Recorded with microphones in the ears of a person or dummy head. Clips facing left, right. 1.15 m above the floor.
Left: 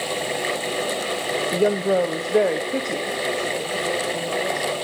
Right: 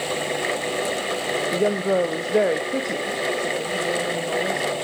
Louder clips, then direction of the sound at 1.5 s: Left 2 dB; 10° left (ahead or behind).